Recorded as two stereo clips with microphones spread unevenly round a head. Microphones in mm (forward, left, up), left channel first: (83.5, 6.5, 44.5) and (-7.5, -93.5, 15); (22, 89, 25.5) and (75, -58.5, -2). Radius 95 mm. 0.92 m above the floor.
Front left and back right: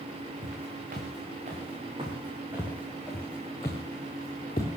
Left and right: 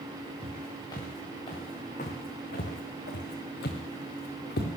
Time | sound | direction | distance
0.4 | footsteps | 175° right | 4.5 m